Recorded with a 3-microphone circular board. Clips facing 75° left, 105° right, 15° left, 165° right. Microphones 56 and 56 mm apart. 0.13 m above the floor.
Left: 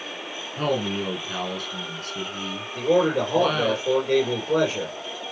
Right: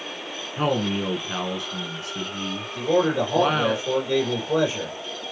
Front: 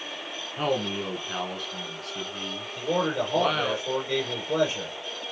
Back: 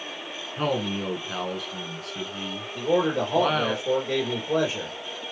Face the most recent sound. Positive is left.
turn(degrees=125)